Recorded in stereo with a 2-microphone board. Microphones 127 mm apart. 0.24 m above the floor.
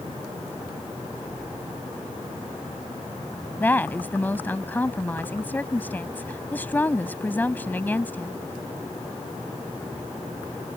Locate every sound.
3.6 s a woman speaking: 15° left (ahead or behind)